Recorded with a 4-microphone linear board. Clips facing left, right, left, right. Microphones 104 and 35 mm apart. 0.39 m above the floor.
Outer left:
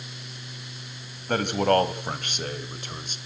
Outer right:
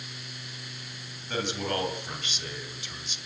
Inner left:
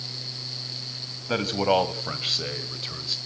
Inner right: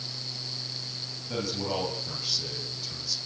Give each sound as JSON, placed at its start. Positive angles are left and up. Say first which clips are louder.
{"t": 1.3, "sound": "a man speaking", "louder": "outer left 9 dB, inner left 9 dB", "side_deg": 55, "distance_m": 3.0}